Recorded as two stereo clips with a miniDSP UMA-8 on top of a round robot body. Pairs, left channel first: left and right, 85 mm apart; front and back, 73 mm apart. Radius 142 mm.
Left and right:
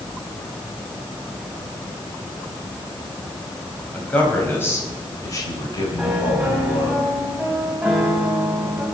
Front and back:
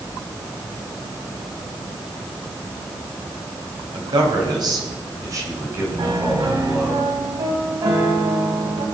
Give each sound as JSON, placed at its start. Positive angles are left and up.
{"t": 3.9, "sound": "a man speaking", "azimuth_deg": 165, "distance_m": 4.0}
{"t": 6.0, "sound": "a piano", "azimuth_deg": -170, "distance_m": 2.5}